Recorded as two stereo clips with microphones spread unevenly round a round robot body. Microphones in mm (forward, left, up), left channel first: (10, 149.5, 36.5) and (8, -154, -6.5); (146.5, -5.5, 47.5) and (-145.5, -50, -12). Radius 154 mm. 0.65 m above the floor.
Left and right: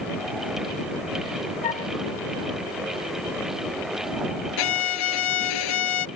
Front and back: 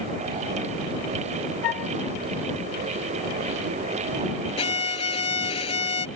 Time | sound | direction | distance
1.6 | a flute | 20° left | ?
4.6 | a violin | 80° left | ?